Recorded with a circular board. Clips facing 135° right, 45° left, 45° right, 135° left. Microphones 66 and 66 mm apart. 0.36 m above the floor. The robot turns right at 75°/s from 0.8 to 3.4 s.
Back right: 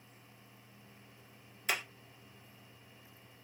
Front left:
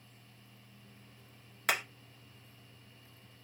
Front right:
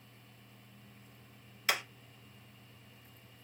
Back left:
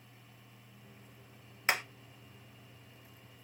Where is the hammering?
70° left, 1.5 m; by 1.8 s 80° left, 1.5 m.